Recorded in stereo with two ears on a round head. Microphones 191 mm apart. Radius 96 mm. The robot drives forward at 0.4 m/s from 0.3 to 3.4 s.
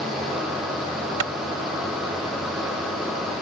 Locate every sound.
1.2 s a clap: 85° right